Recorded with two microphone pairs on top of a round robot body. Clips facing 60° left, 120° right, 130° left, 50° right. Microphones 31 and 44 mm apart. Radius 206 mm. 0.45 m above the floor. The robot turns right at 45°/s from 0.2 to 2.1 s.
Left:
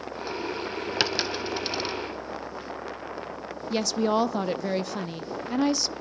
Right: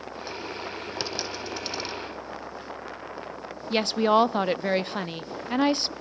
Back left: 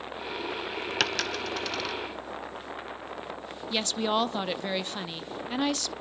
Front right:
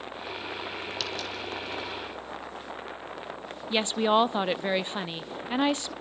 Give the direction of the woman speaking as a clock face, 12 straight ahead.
4 o'clock.